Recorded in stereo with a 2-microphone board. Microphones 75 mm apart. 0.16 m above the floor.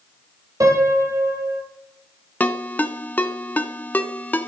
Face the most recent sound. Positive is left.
turn(degrees=20)  # may be behind; listen again after turning